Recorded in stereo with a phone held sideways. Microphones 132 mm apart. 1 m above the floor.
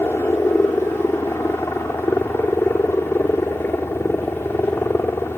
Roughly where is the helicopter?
Centre.